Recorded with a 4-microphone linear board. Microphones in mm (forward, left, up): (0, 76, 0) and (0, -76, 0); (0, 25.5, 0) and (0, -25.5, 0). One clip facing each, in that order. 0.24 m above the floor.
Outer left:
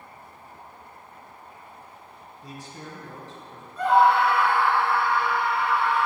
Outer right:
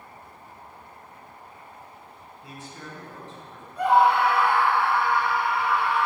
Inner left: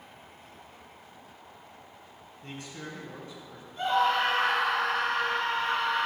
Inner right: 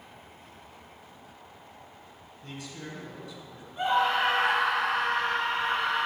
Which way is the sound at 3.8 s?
15° right (ahead or behind).